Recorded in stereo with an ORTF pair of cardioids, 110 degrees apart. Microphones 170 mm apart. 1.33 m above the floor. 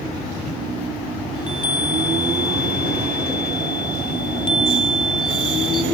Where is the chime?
30° left, 1.4 m.